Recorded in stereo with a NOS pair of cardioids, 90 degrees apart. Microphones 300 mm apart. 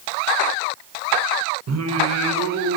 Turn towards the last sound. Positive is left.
turn(degrees=-60)